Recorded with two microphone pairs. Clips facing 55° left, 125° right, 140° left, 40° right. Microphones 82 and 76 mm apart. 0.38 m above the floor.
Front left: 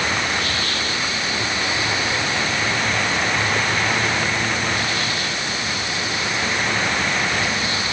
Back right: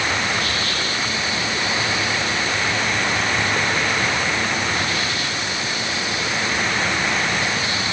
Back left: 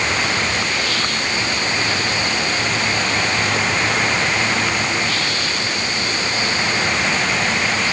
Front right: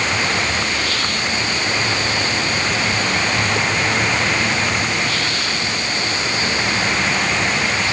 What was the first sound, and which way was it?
Only background noise.